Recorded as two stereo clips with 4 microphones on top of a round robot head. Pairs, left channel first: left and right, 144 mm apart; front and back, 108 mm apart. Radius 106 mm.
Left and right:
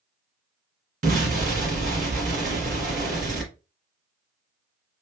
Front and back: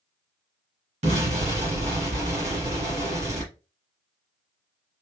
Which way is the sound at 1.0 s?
135° right.